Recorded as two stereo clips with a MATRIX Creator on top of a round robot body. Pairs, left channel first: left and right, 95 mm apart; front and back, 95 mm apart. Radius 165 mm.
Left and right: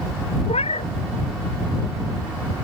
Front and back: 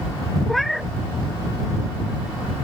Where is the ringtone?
I don't hear a ringtone.